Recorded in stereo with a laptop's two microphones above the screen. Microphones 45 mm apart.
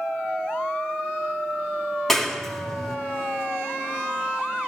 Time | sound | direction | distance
2.1 | a clap | 5° left (ahead or behind) | 4 m